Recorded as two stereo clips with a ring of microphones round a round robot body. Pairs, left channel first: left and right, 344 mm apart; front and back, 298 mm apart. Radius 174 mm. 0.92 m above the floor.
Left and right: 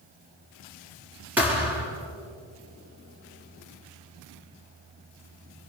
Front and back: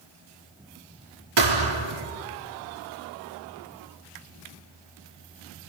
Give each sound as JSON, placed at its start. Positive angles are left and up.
{"t": 1.4, "sound": "a thud", "azimuth_deg": -175, "distance_m": 4.5}